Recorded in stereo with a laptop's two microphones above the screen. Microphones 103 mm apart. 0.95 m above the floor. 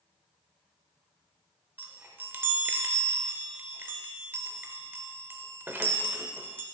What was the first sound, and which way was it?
A chime, 20° right (ahead or behind).